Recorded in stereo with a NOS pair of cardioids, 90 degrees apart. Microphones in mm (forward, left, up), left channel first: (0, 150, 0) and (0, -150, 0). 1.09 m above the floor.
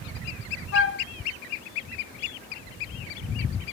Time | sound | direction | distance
0.7 | a flute | 45° left | 1.1 m